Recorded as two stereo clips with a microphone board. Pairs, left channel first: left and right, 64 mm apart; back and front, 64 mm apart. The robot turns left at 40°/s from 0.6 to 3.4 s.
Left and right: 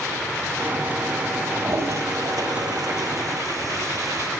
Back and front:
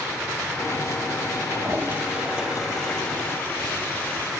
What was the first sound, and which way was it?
A toilet flushing, 35° right.